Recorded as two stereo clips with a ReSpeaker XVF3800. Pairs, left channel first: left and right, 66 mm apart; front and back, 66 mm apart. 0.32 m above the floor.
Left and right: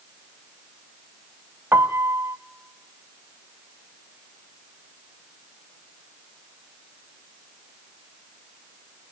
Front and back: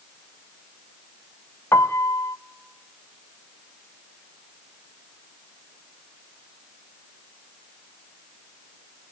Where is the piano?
40° right, 0.6 m.